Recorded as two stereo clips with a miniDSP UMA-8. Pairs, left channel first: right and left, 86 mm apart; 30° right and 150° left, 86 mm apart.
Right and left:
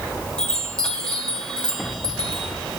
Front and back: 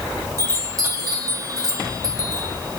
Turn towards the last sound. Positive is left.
turn(degrees=-170)